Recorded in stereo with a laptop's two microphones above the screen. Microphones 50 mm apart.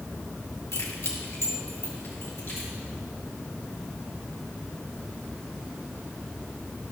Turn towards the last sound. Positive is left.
turn(degrees=55)  # may be behind; listen again after turning